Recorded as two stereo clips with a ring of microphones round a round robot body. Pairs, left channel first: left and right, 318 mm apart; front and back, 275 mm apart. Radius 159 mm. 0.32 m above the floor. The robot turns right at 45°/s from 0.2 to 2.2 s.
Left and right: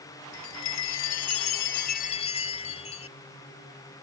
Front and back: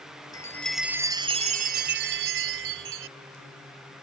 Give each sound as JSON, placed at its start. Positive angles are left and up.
{"t": 0.3, "sound": "a chime", "azimuth_deg": 70}